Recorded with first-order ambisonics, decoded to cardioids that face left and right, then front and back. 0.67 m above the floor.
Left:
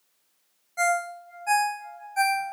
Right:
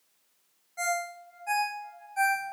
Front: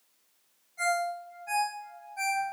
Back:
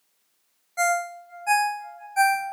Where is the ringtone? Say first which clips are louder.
Left 6 dB, back 5 dB; 155° left, 0.7 m.